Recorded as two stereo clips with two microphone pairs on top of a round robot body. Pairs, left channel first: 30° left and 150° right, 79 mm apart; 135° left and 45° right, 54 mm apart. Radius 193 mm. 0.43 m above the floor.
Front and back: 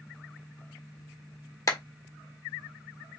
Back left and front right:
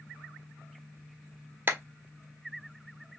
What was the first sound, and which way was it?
A clap, 5° right.